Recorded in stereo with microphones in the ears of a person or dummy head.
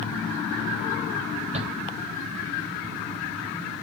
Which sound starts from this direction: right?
A shout, at 1.5 s.